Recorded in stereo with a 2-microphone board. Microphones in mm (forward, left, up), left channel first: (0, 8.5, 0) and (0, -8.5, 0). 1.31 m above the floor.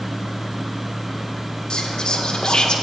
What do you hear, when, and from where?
1.7 s whispering: 60° left (ahead or behind), 1.4 m